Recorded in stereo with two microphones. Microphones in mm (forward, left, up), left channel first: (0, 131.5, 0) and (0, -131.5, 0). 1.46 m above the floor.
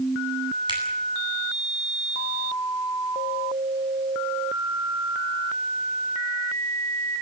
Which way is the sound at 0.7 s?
15° right (ahead or behind).